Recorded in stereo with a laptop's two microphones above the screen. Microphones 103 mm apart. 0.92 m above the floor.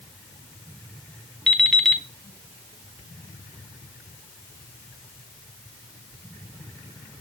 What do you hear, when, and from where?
1.5 s an alarm clock: 5° left (ahead or behind), 1.0 m